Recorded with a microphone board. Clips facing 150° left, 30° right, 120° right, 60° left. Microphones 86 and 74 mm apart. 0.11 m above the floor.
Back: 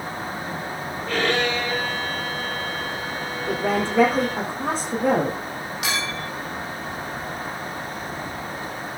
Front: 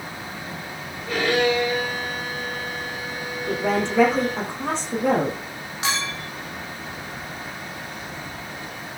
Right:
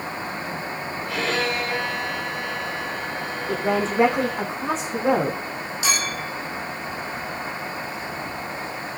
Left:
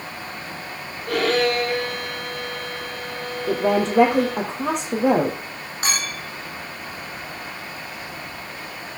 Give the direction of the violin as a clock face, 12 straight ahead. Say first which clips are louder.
Front 2 dB, left 6 dB; 10 o'clock.